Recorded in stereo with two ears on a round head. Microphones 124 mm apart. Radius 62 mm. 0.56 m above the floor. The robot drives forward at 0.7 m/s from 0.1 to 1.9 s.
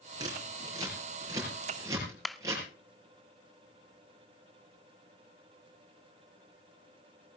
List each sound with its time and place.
0.2 s scissors: 30° right (ahead or behind), 6 m; by 2.6 s 25° right (ahead or behind), 7 m
2.2 s a clap: centre (ahead or behind), 0.6 m